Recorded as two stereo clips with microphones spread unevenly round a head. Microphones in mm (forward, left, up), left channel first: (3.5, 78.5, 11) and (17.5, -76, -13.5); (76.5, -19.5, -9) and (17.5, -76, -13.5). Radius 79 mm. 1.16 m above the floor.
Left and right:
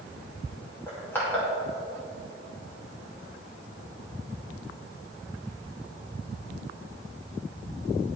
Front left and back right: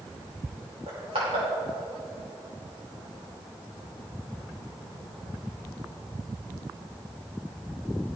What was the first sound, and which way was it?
Crushing, 175° left.